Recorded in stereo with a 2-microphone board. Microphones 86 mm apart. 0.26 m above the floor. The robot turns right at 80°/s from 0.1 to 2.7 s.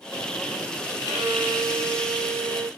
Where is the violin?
175° right, 1.7 m; by 2.7 s 45° right, 1.7 m.